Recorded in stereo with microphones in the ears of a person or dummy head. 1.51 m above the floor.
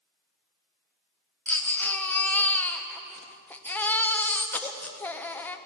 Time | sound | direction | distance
1.5 | a baby crying | 10° left (ahead or behind) | 0.7 m